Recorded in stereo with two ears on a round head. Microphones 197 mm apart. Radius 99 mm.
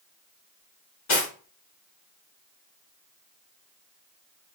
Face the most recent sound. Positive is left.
turn(degrees=65)  # may be behind; listen again after turning